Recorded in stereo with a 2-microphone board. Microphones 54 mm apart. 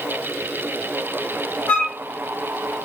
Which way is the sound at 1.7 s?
30° left (ahead or behind).